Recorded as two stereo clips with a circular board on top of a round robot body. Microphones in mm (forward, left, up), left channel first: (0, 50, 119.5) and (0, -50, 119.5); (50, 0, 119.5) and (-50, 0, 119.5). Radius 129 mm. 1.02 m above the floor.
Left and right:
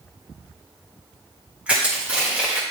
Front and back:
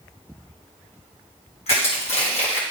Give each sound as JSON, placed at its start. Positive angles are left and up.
{"t": 1.7, "sound": "crushing", "azimuth_deg": -10, "distance_m": 1.9}